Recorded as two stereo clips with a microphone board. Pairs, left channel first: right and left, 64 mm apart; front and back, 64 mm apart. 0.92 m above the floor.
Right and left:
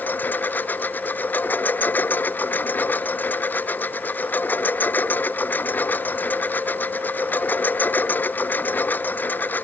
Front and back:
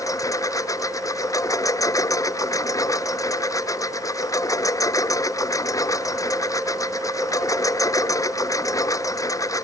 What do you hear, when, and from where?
0.0 s a lawn mower: 30° right